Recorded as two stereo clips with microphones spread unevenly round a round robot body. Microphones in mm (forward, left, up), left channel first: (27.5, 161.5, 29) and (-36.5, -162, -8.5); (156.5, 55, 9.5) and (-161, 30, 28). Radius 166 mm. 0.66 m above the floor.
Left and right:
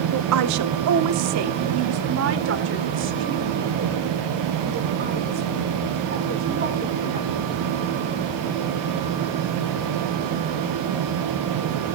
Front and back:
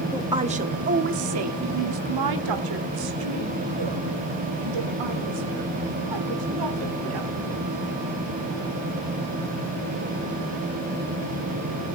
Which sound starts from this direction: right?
A woman speaking, at 0.1 s.